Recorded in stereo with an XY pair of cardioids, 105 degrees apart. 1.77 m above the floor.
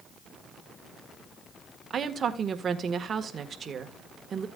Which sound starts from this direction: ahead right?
A woman speaking, at 1.9 s.